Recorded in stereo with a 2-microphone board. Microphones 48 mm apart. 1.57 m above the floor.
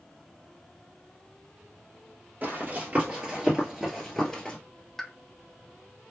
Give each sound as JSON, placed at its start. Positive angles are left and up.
{"t": 2.4, "sound": "running footsteps", "side_deg": -40, "distance_m": 2.0}
{"t": 5.0, "sound": "a pop", "side_deg": 5, "distance_m": 0.5}